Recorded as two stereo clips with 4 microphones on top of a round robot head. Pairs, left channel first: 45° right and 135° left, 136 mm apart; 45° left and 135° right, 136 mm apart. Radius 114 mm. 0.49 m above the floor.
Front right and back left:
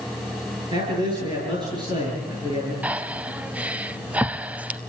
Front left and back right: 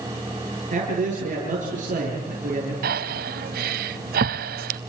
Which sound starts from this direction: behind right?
Breathing, at 2.8 s.